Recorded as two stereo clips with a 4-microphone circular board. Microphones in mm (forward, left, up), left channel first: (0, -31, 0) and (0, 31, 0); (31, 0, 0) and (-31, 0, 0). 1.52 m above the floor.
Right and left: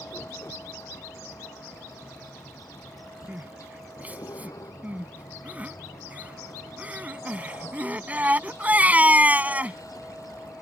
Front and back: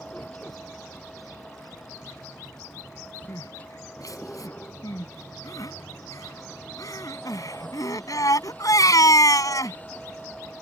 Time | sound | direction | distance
0.0 | a vehicle | 70° right | ?
3.3 | crying | 25° left | ?